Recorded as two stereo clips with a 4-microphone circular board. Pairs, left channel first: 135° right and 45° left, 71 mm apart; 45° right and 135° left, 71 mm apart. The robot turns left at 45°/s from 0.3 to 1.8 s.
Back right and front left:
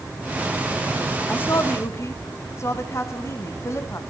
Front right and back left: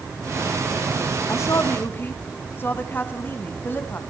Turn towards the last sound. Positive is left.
turn(degrees=-100)